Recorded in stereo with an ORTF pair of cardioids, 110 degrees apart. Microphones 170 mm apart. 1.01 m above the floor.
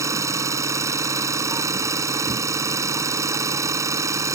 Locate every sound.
0.0 s an engine running: 20° right